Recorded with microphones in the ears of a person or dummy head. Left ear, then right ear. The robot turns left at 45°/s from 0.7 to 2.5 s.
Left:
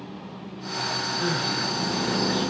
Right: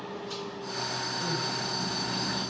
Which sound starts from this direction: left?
Crying, at 1.2 s.